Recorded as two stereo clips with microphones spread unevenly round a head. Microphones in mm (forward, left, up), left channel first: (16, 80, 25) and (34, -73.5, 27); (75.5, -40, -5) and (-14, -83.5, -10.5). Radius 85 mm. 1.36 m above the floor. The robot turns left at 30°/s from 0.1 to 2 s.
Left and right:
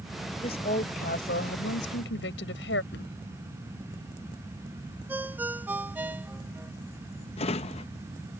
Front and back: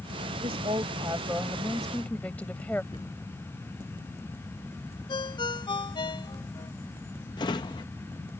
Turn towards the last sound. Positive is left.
turn(degrees=55)